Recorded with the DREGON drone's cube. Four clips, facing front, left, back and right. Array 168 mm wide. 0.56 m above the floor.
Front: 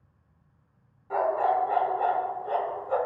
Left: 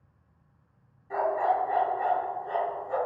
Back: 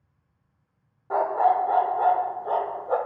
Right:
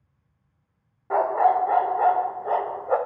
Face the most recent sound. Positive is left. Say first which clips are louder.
# right 6 dB, back 3 dB
turn(degrees=-120)